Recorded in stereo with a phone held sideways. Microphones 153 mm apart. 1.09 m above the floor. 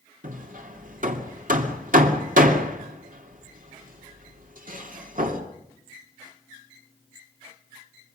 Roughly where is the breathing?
I don't hear breathing.